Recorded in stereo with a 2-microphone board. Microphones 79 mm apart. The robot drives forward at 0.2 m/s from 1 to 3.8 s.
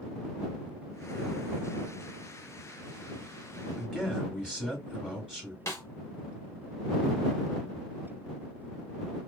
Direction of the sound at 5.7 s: 35° left (ahead or behind).